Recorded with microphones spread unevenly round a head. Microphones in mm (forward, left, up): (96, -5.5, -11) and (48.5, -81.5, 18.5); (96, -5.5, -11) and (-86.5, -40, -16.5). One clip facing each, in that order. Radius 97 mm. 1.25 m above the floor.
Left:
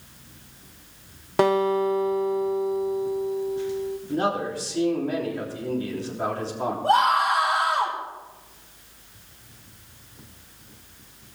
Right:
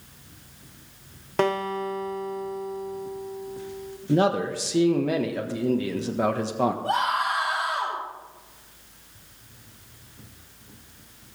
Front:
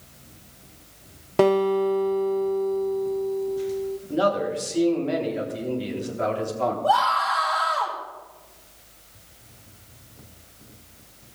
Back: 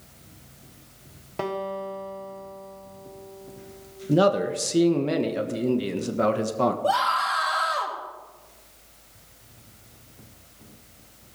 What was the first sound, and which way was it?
A guitar, 15° right.